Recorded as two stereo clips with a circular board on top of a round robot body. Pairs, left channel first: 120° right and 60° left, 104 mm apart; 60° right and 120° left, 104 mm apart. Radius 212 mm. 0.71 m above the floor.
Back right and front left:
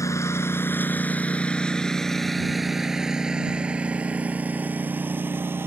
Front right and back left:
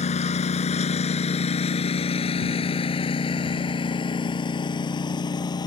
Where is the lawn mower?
55° right; by 5.7 s 10° right.